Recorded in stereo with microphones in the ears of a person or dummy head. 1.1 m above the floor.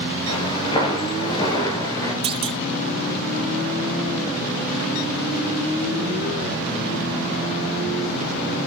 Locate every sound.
0.3 s footsteps: 25° left (ahead or behind), 8 m; by 2.1 s 20° left (ahead or behind), 6.5 m
2.2 s a clunk: 30° right (ahead or behind), 1.4 m